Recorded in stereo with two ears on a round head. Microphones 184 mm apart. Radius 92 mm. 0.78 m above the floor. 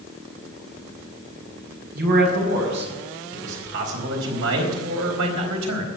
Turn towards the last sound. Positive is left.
turn(degrees=-80)